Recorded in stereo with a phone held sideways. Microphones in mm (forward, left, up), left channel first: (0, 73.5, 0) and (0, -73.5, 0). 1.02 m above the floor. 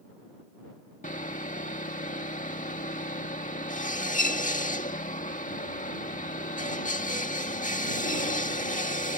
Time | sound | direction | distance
1.0 | sawing | 65° left (ahead or behind) | ?